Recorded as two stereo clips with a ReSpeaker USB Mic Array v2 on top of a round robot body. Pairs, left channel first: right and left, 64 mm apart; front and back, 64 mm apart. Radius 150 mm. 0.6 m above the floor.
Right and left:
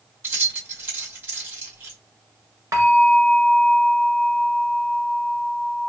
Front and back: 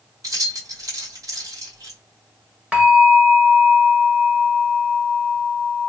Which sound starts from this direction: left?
A bell, at 2.7 s.